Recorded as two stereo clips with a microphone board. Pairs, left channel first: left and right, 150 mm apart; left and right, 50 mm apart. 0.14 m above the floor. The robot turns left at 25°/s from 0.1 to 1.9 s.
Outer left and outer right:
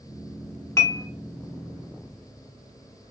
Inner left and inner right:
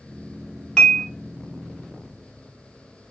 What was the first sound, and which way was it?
Dishes clattering, 20° left (ahead or behind).